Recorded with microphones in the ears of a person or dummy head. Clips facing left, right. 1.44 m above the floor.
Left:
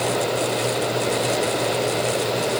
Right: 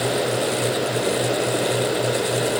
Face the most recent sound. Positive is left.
No sound to turn to.